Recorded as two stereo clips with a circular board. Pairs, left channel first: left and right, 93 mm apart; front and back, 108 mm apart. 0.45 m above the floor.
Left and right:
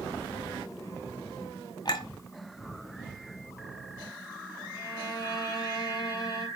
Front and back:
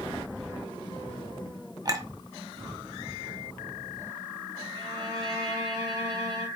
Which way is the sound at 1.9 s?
125° left.